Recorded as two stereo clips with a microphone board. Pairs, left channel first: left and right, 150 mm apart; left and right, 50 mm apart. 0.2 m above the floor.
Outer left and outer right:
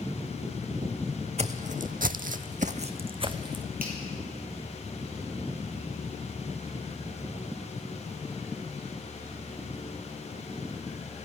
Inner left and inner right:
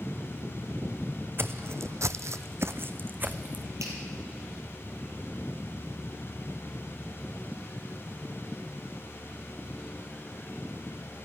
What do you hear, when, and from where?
1.4 s footsteps: 50° right (ahead or behind), 0.6 m; by 3.6 s 30° right (ahead or behind), 1.0 m
3.8 s a finger snap: 80° right, 3.5 m